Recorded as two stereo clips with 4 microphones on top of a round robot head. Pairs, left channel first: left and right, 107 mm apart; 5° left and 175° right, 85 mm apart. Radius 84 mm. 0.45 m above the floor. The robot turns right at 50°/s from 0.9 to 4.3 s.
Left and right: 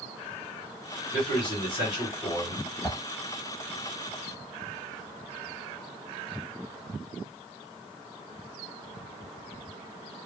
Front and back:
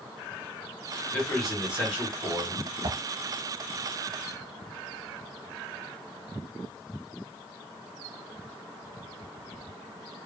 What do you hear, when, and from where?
1.1 s a man speaking: 80° left, 1.8 m; by 2.7 s 155° left, 1.8 m
2.8 s a whoosh: straight behind, 0.8 m; by 3.0 s 175° right, 0.8 m